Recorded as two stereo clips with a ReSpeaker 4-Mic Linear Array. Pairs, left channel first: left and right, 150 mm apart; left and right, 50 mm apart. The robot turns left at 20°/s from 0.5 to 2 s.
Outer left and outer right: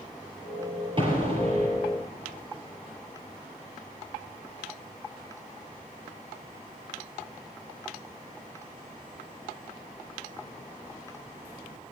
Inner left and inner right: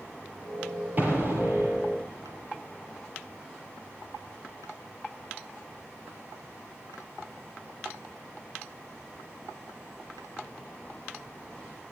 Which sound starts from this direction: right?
An explosion, at 1.0 s.